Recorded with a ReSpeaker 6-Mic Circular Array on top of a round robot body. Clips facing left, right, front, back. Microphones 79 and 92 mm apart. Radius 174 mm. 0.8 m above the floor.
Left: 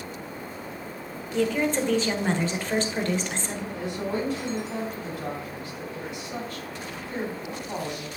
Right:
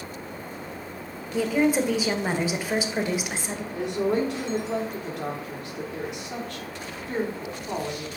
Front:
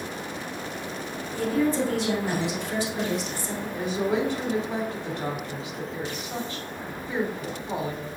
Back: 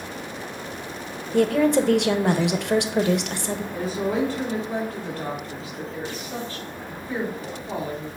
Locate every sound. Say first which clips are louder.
1.3 s a woman speaking: right 2 dB, back 6 dB; 170° right, 0.7 m
3.7 s a woman speaking: right 6 dB, even; 70° right, 2.5 m